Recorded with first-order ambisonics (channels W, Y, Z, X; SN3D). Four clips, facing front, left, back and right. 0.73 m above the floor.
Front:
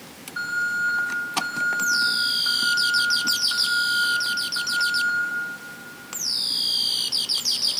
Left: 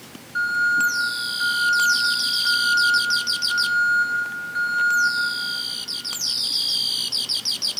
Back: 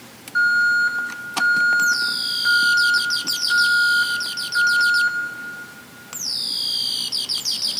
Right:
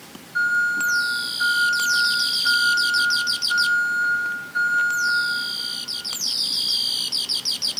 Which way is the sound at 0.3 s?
170° left.